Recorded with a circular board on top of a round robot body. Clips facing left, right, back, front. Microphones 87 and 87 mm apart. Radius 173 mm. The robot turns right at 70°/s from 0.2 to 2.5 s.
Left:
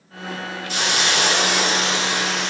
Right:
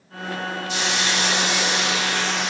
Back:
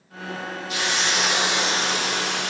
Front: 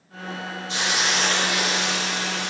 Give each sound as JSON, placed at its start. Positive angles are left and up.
{"t": 0.7, "sound": "a hiss", "azimuth_deg": 60, "distance_m": 0.8}